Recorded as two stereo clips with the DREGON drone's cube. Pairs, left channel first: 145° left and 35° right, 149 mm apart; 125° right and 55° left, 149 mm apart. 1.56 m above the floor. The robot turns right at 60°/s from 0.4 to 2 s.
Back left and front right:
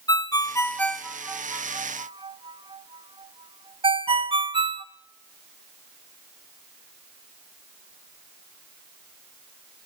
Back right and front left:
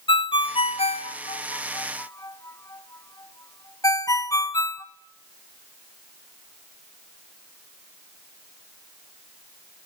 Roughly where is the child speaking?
I don't hear a child speaking.